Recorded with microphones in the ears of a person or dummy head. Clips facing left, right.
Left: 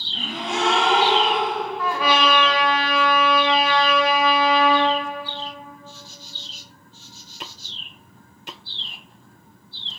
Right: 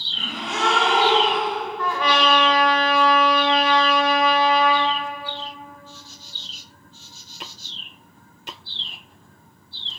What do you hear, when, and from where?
0.1 s a gasp: 35° left (ahead or behind), 2.5 m
1.8 s a trumpet: 5° left (ahead or behind), 0.9 m